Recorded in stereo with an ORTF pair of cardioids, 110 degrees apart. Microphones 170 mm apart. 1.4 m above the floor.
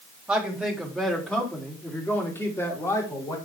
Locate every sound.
0.3 s a man speaking: 5° right, 3 m; by 3.4 s 20° left, 5 m